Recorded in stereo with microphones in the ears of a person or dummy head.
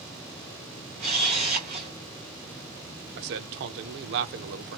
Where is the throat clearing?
No throat clearing in this recording.